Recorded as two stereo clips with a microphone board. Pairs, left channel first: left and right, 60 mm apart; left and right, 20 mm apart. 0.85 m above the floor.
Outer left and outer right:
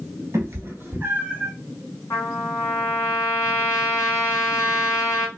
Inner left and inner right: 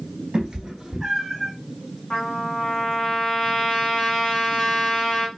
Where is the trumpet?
55° left (ahead or behind), 1.2 m.